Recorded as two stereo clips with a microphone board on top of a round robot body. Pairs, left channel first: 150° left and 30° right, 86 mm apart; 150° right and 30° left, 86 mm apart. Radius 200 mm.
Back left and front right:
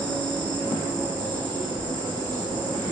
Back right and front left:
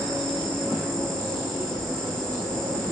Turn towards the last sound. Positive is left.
turn(degrees=-70)